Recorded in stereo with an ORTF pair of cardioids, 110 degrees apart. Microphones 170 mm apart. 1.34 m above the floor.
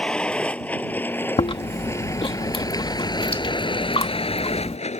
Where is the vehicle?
5° left; by 5.0 s 40° left.